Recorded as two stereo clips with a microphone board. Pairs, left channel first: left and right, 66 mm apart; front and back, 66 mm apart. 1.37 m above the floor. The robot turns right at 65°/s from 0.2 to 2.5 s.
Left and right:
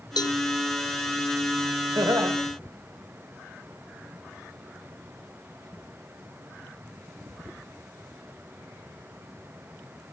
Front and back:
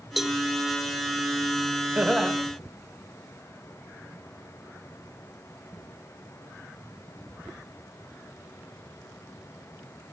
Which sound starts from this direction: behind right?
Laughter, at 1.9 s.